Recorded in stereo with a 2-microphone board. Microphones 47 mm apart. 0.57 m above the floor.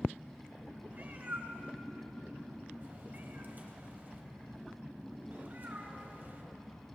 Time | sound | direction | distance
0.9 | a cat meowing | 40° right (ahead or behind) | 1.2 m